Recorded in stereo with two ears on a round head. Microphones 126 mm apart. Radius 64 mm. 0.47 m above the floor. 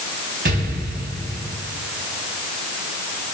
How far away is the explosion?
About 3.5 m.